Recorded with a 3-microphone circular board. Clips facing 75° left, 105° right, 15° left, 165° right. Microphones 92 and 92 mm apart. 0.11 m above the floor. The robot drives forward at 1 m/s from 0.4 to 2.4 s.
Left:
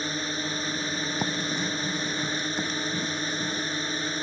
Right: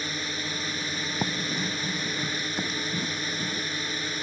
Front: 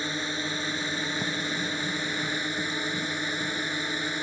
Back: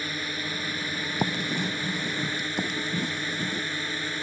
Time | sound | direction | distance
0.0 | a drone | 60° left | ?
1.2 | writing | 165° left | ?